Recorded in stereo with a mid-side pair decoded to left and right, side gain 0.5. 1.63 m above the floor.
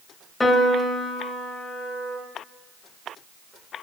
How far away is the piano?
About 0.5 m.